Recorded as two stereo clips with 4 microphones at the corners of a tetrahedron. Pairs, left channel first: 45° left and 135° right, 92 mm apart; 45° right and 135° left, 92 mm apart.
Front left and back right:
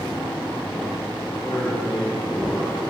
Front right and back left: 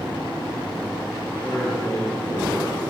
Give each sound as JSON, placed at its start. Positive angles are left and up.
{"t": 1.4, "sound": "a man speaking", "azimuth_deg": 10, "distance_m": 5.0}